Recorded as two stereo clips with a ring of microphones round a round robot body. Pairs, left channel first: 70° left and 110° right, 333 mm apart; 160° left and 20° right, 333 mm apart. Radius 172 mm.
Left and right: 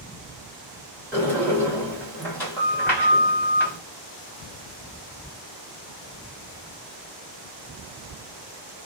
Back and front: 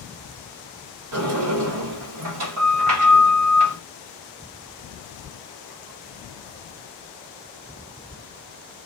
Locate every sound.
1.1 s a sliding door: 15° right, 1.8 m